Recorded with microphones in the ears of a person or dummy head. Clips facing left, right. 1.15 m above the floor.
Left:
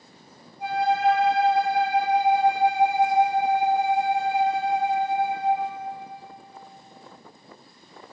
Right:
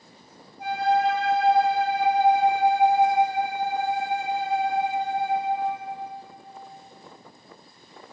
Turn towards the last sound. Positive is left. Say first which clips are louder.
# even
turn(degrees=-45)  # may be behind; listen again after turning